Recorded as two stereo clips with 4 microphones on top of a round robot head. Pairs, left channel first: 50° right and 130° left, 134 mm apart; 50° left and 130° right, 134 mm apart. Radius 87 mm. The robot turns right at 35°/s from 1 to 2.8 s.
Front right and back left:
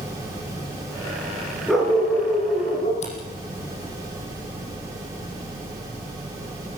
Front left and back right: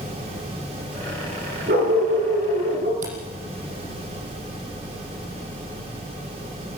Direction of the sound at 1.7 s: 145° right.